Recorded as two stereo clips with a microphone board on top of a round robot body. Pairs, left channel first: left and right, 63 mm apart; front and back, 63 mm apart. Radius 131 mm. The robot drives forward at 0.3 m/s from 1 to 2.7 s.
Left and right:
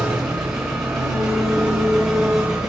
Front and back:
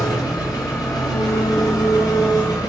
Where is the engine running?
5° right, 4 m.